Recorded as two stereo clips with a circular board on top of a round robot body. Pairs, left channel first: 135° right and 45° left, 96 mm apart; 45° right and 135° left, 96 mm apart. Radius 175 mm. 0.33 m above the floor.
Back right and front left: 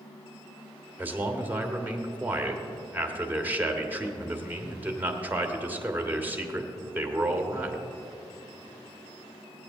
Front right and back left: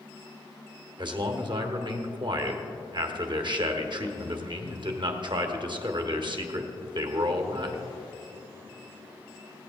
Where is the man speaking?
115° left, 1.5 m.